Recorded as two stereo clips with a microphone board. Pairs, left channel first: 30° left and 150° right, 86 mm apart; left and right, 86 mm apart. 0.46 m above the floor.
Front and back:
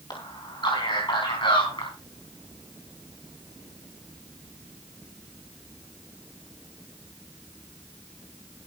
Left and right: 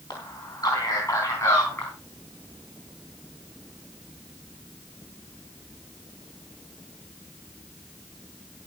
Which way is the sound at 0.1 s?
55° left.